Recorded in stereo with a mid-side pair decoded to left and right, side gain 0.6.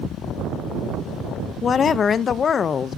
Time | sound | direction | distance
1.6 | a woman speaking | 35° left | 0.6 m